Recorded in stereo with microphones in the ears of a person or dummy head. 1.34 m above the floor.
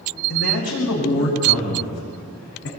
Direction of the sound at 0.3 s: 75° left (ahead or behind).